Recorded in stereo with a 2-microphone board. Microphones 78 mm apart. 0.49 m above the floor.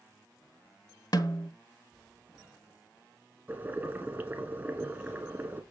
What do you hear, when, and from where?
1.1 s a snare drum: 60° left (ahead or behind), 1.1 m
3.5 s boiling: 25° right (ahead or behind), 1.8 m